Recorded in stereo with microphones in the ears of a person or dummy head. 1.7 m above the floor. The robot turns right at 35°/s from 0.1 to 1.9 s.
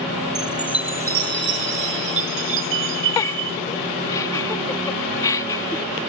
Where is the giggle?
10° left (ahead or behind).